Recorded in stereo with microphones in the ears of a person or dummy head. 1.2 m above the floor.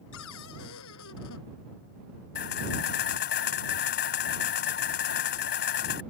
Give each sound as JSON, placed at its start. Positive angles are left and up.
{"t": 0.1, "sound": "a cupboard door", "side_deg": 75}
{"t": 2.4, "sound": "a camera shutter", "side_deg": 50}